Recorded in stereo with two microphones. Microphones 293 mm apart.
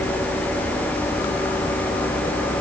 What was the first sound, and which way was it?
Only background noise.